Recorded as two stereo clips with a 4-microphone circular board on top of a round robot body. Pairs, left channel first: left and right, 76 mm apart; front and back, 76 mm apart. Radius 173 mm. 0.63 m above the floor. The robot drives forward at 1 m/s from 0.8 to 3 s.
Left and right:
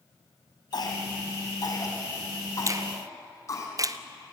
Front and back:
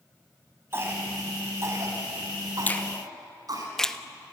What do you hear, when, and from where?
0.7 s a cough: 120° left, 4.5 m; by 3.7 s 140° left, 6 m
2.7 s a finger snap: 60° right, 1.3 m; by 4.0 s 80° right, 1.2 m